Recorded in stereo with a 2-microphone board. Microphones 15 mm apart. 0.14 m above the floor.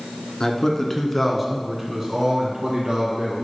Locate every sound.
0.4 s a man speaking: 35° left (ahead or behind), 1.7 m; by 3.4 s 55° right (ahead or behind), 2.5 m